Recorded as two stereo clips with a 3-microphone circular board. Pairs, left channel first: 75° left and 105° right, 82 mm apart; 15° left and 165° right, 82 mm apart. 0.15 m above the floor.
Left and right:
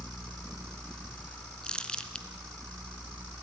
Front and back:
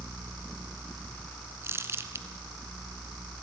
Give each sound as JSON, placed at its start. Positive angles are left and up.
{"t": 1.6, "sound": "crumpling", "azimuth_deg": 150, "distance_m": 1.2}